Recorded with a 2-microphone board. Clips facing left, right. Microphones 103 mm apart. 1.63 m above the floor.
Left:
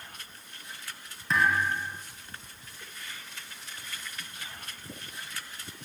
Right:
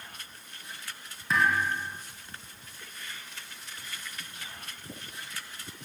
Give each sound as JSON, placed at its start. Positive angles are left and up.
{"t": 1.3, "sound": "a thud", "side_deg": 0, "distance_m": 3.0}